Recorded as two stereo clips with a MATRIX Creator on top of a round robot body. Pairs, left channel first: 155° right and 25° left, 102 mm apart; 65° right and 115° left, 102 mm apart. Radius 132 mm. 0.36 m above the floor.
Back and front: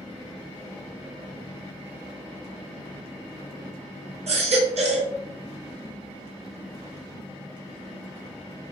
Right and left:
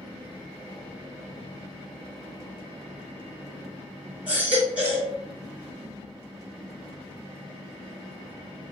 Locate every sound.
4.3 s a baby crying: 35° left, 3 m